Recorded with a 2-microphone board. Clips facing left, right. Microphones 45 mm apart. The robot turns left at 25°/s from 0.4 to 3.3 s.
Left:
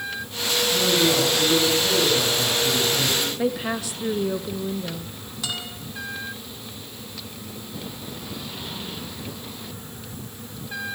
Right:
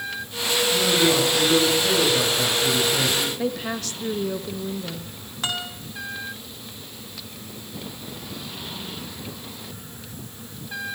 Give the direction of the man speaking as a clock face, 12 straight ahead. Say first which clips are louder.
Right 1 dB; 12 o'clock.